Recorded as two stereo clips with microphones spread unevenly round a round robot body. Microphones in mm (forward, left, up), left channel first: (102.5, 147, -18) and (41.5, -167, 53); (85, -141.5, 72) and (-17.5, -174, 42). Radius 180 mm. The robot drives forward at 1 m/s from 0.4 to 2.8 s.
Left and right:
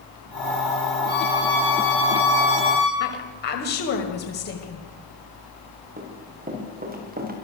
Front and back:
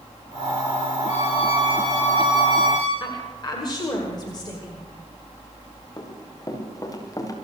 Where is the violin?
20° left, 7 m; by 2.9 s 25° left, 5.5 m.